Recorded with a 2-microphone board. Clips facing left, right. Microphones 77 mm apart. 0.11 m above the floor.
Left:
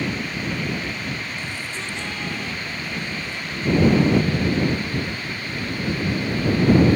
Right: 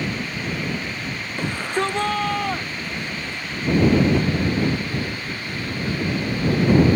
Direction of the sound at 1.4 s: 60° right (ahead or behind).